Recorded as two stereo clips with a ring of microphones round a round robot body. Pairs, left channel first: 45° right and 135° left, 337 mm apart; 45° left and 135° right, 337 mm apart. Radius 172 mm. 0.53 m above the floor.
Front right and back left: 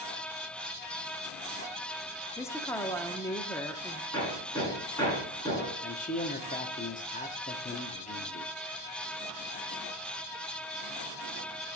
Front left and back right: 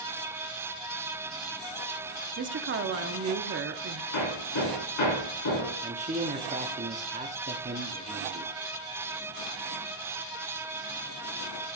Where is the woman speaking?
120° right, 0.8 m.